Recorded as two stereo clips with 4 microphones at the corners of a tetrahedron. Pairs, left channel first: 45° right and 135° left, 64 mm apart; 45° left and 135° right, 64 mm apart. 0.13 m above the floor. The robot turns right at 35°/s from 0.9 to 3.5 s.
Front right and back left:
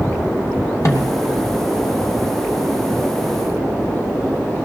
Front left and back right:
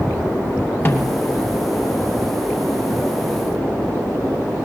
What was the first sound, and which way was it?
A snare drum, 15° right.